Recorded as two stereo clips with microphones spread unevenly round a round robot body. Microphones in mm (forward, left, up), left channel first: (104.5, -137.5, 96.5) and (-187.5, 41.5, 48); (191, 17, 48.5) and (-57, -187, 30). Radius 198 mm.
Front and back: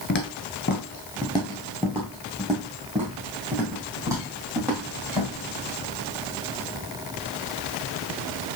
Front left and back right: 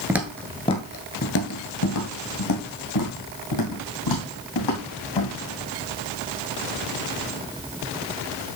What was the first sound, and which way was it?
Footsteps, 55° right.